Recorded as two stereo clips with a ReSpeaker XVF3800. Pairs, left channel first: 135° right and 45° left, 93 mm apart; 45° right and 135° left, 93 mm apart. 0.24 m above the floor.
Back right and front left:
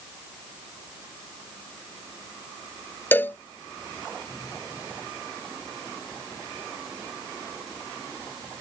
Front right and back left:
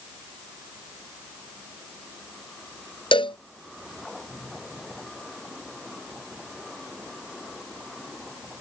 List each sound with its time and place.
3.1 s a cowbell: 65° right